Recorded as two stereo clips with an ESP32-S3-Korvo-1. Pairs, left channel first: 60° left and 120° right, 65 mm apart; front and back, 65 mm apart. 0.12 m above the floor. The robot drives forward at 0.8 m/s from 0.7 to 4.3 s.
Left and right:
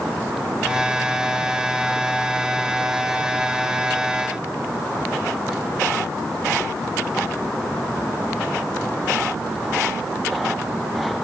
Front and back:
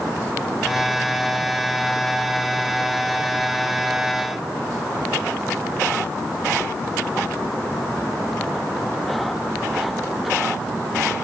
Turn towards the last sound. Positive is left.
No sound to turn to.